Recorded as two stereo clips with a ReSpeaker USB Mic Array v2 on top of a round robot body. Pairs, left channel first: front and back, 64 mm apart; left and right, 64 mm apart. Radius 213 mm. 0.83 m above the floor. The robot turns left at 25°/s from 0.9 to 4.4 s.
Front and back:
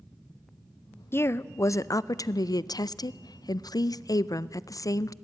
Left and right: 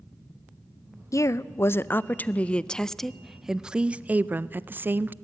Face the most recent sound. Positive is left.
turn(degrees=-30)